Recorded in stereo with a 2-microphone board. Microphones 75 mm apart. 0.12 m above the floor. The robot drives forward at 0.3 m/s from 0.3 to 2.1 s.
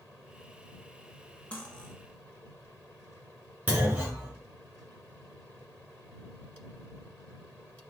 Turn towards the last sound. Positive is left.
turn(degrees=-20)  # may be behind; listen again after turning